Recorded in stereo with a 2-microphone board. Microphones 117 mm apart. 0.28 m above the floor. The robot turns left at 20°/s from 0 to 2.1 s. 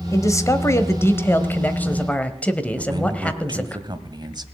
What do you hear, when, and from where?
0.1 s a man speaking: 65° left, 1.1 m; by 3.8 s 25° left, 1.1 m
2.8 s a man speaking: 35° right (ahead or behind), 1.3 m